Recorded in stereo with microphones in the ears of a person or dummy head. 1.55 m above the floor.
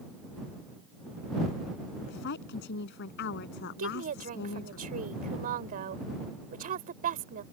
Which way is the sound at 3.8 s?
45° right (ahead or behind).